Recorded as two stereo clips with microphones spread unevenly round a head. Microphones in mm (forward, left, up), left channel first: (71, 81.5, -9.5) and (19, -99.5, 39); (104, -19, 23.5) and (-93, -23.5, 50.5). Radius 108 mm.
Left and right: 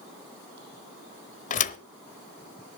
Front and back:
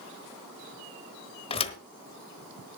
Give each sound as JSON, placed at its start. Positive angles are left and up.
{"t": 1.5, "sound": "a thud", "azimuth_deg": 50, "distance_m": 0.9}